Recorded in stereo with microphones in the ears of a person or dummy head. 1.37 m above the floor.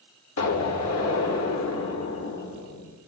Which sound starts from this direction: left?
An explosion, at 0.4 s.